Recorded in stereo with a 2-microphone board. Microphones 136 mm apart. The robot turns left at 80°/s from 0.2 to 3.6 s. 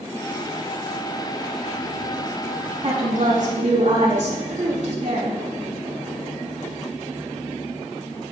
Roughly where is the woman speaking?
Ahead right.